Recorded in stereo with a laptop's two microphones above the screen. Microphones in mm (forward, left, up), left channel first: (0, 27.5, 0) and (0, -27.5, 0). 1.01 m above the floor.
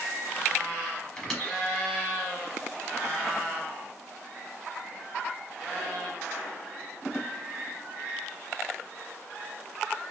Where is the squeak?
15° left (ahead or behind), 1.0 m.